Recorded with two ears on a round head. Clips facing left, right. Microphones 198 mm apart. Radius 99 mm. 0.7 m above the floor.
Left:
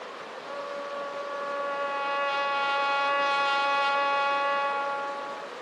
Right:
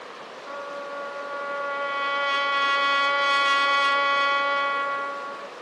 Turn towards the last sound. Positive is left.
turn(degrees=-35)  # may be behind; listen again after turning